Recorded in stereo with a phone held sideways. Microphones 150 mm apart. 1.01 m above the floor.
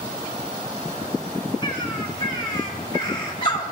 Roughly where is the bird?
Left.